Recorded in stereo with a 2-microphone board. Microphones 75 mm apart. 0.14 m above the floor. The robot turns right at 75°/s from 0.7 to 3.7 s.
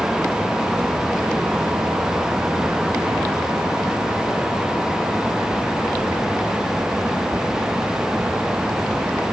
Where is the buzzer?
No buzzer in this recording.